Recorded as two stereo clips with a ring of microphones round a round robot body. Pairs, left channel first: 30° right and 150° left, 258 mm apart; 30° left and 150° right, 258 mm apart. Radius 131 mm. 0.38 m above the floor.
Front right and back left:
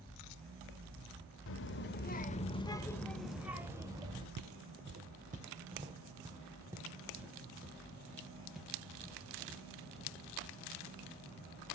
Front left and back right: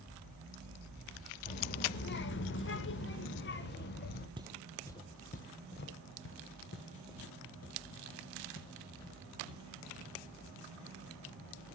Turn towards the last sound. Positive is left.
turn(degrees=60)